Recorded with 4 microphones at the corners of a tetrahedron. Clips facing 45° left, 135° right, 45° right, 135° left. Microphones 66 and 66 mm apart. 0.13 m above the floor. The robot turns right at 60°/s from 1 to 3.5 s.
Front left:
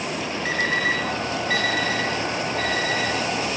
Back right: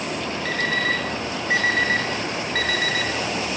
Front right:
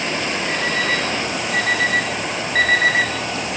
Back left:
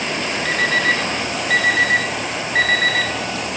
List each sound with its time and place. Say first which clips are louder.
0.5 s an alarm clock: front left 1 dB, back left 5 dB; 120° left, 3.5 m; by 3.1 s 110° right, 3.5 m